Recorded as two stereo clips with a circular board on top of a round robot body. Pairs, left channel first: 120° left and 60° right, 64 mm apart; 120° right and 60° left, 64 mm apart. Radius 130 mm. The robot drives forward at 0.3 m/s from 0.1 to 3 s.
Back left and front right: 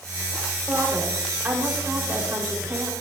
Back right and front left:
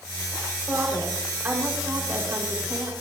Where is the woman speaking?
5° left, 4.5 m.